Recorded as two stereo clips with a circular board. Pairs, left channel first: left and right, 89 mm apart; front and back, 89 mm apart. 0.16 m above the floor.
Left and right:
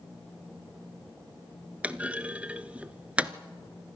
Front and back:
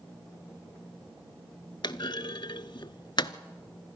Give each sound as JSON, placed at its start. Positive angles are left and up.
{"t": 1.8, "sound": "a clunk", "azimuth_deg": -15, "distance_m": 0.6}